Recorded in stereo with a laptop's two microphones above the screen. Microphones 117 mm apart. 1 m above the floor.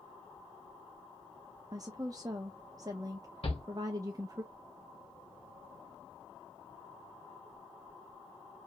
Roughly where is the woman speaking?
Right.